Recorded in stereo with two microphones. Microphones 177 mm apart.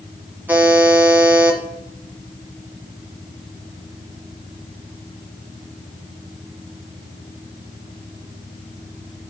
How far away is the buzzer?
About 1.6 m.